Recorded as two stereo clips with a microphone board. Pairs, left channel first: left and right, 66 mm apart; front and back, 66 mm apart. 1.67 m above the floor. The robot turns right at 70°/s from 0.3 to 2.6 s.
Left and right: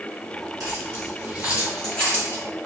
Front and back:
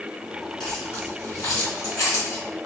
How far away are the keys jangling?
About 1.7 m.